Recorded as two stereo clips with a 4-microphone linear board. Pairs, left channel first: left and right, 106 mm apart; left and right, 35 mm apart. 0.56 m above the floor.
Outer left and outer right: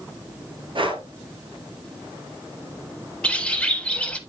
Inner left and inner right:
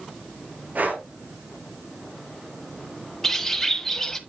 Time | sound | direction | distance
0.8 | breathing | 55° right (ahead or behind) | 1.6 m
3.2 | a bird | 10° left (ahead or behind) | 0.9 m